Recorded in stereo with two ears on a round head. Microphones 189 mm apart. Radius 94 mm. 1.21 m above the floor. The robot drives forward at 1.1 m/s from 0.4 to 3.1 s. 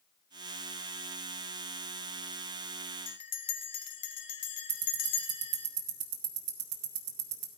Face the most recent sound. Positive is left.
turn(degrees=-80)